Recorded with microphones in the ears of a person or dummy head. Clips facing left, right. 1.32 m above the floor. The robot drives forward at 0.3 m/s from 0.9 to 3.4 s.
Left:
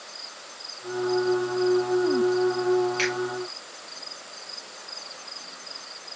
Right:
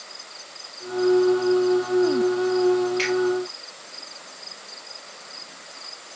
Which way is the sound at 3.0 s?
15° left (ahead or behind).